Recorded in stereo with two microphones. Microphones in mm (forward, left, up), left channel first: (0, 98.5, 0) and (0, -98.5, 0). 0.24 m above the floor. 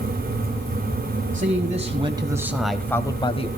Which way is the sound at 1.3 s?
40° right (ahead or behind).